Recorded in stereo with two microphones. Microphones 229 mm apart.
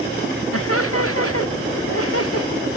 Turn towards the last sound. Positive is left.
turn(degrees=85)